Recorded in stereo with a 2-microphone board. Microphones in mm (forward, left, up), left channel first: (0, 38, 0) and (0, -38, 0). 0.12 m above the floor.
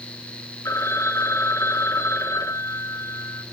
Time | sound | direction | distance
0.7 | a phone ringing | 40° left (ahead or behind) | 1.4 m